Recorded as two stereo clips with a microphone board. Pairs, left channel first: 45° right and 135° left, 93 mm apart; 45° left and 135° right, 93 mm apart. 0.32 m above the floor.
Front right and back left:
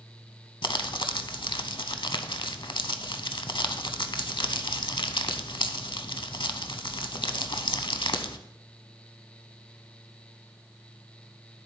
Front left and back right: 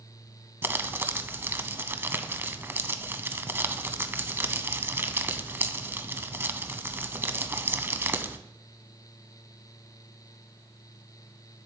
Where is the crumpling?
70° right, 0.6 m.